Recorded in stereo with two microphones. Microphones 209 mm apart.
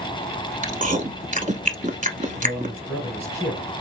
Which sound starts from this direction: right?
Chewing, at 0.6 s.